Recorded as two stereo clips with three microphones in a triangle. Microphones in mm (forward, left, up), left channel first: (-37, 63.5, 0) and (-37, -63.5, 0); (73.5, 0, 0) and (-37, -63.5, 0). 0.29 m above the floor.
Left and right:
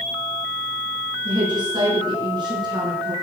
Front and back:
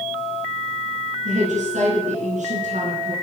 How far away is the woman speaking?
About 4 m.